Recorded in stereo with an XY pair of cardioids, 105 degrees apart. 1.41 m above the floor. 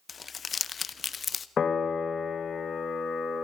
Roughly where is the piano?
Ahead left.